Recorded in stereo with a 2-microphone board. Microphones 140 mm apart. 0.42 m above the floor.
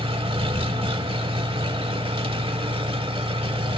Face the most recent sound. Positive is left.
turn(degrees=-40)  # may be behind; listen again after turning